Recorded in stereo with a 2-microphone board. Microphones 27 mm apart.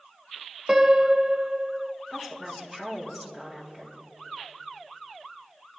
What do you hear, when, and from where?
0.7 s a piano: 15° right (ahead or behind), 0.8 m
2.1 s a woman speaking: 10° right (ahead or behind), 3.5 m